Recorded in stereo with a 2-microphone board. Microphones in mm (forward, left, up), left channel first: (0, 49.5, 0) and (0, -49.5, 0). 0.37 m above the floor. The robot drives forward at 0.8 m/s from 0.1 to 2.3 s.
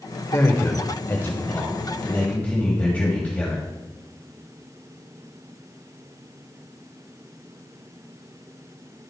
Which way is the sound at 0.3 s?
25° left (ahead or behind).